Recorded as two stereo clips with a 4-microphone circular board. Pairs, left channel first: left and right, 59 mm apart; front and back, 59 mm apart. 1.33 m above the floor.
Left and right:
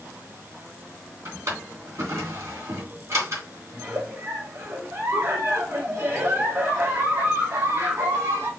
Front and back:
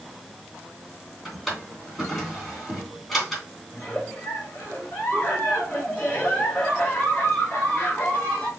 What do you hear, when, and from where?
1.2 s a drawer: 85° right, 3 m
3.7 s a giggle: 65° right, 3 m